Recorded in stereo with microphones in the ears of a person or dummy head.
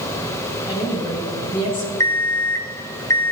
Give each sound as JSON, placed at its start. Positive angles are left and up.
{"t": 0.7, "sound": "a woman speaking", "side_deg": 25, "distance_m": 4.0}
{"t": 2.0, "sound": "an alarm clock", "side_deg": 15, "distance_m": 0.5}